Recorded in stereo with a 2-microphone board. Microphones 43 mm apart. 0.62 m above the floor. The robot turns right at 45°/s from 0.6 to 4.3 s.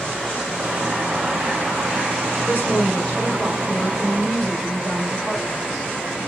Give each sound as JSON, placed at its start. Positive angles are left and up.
{"t": 2.5, "sound": "a woman speaking", "azimuth_deg": 95, "distance_m": 1.8}